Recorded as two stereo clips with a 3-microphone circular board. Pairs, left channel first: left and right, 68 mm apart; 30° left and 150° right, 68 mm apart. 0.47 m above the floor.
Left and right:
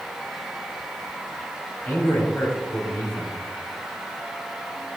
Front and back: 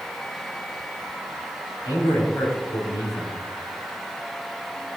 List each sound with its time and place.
1.9 s a man speaking: 25° left, 3 m